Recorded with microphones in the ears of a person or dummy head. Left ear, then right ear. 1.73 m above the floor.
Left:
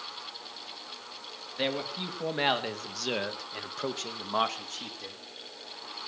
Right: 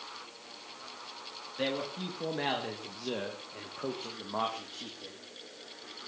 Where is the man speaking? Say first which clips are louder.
Left 3 dB; 30° left (ahead or behind), 3 m; by 5.2 s 55° left (ahead or behind), 3.5 m.